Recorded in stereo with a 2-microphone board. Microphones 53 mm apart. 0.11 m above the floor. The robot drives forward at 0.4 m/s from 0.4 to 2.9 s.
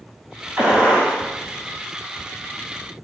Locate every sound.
0.6 s a gunshot: 35° right (ahead or behind), 2 m; by 1.2 s 30° right (ahead or behind), 2.5 m